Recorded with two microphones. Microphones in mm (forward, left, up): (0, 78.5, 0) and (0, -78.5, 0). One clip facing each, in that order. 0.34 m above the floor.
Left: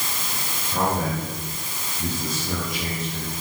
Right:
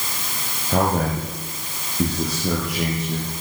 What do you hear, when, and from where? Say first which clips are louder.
0.7 s a man speaking: right 4 dB; 80° right, 8 m; by 3.3 s 65° right (ahead or behind), 8 m